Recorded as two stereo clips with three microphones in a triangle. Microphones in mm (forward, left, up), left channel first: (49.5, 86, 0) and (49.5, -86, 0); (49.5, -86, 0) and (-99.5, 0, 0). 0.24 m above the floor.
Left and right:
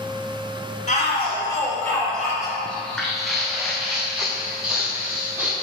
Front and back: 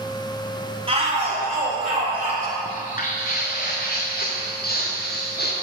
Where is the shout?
105° left, 1.9 m; by 2.5 s 165° right, 2.5 m.